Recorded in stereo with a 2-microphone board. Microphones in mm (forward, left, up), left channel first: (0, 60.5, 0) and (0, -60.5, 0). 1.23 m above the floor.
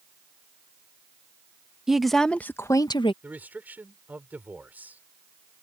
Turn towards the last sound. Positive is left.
turn(degrees=-15)  # may be behind; listen again after turning